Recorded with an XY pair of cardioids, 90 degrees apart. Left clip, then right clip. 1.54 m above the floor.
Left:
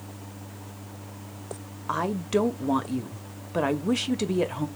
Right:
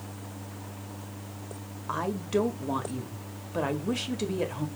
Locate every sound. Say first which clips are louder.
1.9 s a woman speaking: left 3 dB; 35° left, 1.1 m